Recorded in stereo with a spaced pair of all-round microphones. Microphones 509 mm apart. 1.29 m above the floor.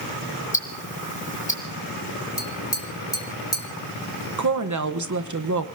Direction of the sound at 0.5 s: 15° left (ahead or behind).